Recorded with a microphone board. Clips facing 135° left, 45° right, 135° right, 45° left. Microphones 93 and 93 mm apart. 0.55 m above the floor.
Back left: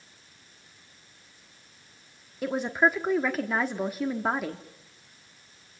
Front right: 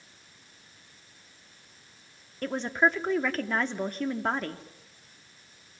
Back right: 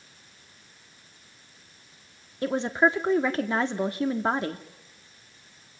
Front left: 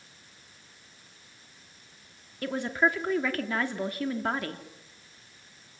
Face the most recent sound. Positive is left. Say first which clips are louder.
# back left 1 dB, back right 4 dB
turn(degrees=-155)